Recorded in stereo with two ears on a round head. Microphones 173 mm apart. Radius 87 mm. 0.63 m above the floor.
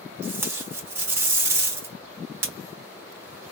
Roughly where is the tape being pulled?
Centre.